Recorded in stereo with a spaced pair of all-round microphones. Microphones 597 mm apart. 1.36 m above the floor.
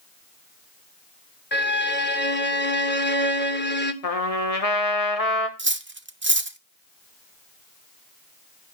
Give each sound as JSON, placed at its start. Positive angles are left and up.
{"t": 1.5, "sound": "a violin", "side_deg": 20, "distance_m": 0.9}
{"t": 4.0, "sound": "a trumpet", "side_deg": 80, "distance_m": 1.5}
{"t": 5.6, "sound": "cutlery clinking", "side_deg": -20, "distance_m": 0.6}